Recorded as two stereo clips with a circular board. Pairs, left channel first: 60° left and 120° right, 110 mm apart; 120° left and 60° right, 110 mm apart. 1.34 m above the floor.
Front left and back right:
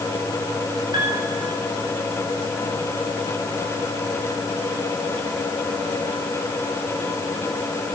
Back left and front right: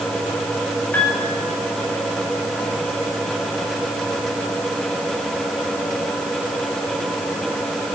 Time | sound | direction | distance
0.9 | a piano | 165° right | 8.5 m